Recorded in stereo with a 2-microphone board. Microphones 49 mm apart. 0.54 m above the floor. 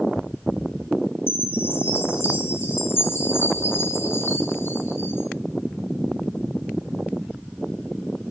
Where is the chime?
50° left (ahead or behind), 3.5 m.